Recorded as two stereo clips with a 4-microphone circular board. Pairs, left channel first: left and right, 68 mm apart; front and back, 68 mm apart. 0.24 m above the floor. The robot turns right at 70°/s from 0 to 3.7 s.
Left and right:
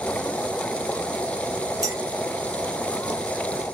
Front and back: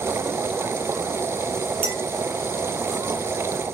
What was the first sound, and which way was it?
A clink, 120° right.